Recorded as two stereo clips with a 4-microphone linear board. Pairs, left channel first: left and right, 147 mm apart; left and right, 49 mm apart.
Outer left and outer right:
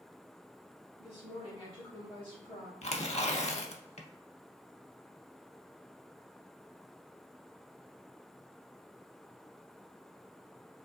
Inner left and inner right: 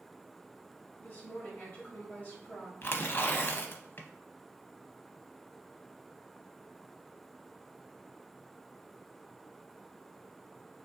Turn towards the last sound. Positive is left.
turn(degrees=50)  # may be behind; listen again after turning